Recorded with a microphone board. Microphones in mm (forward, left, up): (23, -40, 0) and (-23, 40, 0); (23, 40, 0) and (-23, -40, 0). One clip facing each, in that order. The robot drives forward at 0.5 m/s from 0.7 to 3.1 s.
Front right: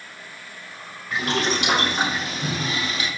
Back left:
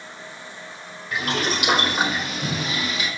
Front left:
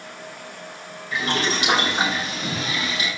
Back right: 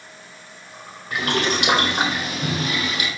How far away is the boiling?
About 6 m.